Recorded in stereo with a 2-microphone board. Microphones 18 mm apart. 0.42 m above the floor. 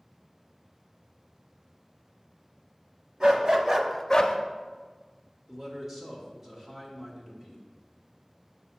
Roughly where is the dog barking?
Right.